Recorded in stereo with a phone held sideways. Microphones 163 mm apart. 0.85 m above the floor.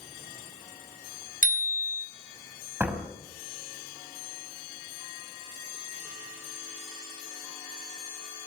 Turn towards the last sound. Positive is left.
turn(degrees=-10)  # may be behind; listen again after turning